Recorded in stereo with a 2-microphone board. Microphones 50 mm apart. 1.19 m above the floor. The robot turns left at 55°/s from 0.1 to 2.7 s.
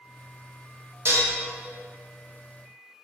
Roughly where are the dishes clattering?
Right.